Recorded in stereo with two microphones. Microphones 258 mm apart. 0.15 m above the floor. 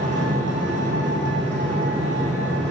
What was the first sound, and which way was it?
An engine running, 45° right (ahead or behind).